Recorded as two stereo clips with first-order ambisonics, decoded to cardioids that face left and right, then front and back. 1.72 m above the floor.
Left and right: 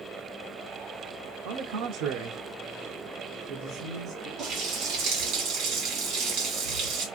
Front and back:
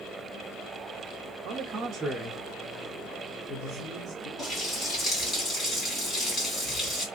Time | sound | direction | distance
1.4 | a man speaking | 130° right | 0.7 m
4.4 | a running tap | 70° right | 1.8 m